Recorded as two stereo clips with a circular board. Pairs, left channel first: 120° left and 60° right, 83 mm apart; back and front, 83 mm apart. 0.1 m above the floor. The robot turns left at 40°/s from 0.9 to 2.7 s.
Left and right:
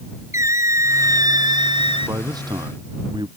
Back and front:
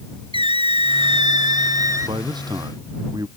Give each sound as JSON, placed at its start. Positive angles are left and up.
{"t": 0.3, "sound": "a squeak", "azimuth_deg": -5}
{"t": 2.0, "sound": "a man speaking", "azimuth_deg": -15}